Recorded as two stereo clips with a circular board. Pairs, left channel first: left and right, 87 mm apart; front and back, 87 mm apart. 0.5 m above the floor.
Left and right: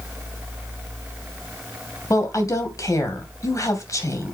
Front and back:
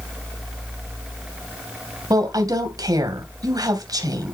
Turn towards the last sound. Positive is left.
turn(degrees=140)